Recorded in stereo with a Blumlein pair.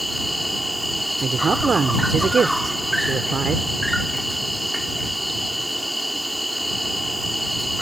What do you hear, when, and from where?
0.0 s an insect: straight ahead
1.2 s a woman speaking: 15° right